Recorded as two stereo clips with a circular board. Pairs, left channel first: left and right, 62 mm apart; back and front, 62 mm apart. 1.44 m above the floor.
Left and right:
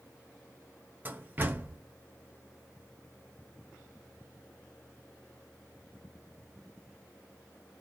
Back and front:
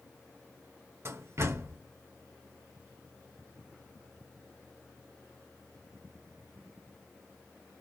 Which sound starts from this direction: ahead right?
A door slam, at 1.1 s.